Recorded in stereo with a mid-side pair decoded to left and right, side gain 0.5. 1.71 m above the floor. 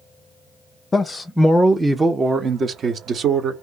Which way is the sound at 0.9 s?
25° left.